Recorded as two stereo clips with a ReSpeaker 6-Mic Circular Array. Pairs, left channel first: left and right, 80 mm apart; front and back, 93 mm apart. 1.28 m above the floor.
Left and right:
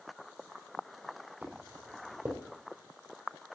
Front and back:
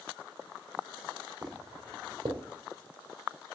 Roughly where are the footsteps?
Behind right.